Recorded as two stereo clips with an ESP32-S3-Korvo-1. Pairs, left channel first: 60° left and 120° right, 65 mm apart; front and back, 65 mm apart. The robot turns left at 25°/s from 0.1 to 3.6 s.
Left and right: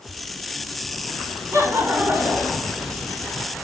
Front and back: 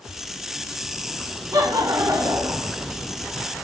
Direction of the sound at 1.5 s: 160° right.